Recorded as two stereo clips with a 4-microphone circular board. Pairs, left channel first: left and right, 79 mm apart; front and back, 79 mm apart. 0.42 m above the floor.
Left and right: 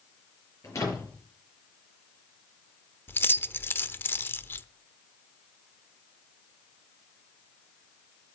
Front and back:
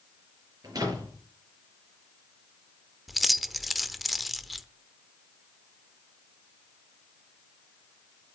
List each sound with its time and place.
0.6 s a door slam: 140° left, 5.5 m
3.1 s keys jangling: 90° left, 0.6 m